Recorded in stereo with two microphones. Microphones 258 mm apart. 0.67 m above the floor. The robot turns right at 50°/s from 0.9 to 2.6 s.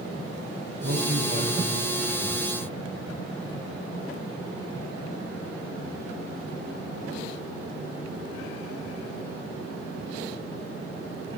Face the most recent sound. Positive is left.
turn(degrees=25)